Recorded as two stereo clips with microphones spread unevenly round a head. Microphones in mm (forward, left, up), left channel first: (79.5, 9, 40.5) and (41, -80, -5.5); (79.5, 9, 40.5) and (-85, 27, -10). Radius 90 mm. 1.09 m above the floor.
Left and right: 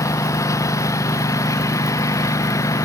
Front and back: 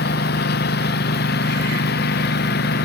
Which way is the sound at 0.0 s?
15° left.